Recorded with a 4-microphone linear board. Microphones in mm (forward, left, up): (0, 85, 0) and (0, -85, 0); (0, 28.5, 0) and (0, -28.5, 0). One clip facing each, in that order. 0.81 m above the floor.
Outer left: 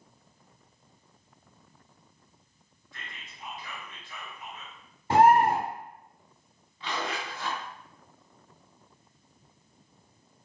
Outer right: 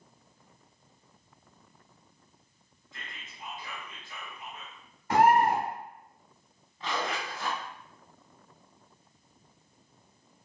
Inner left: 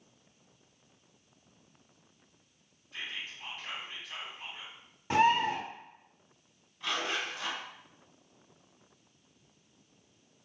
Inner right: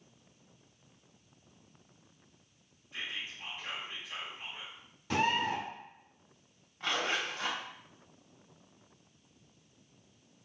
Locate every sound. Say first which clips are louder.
2.9 s whispering: even, even; 20° right (ahead or behind), 1.6 m
5.1 s a bird: outer left 2 dB, inner left 5 dB; 30° left (ahead or behind), 0.8 m
6.8 s a zipper: outer right 1 dB, inner right 1 dB; 45° right (ahead or behind), 1.1 m